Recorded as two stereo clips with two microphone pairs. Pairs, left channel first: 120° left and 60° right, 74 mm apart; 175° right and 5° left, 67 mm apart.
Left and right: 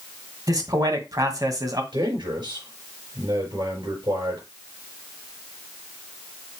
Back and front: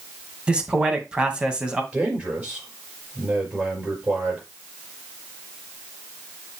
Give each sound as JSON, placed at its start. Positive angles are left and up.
{"t": 0.5, "sound": "a man speaking", "azimuth_deg": -70, "distance_m": 1.8}
{"t": 1.9, "sound": "a man speaking", "azimuth_deg": -60, "distance_m": 5.0}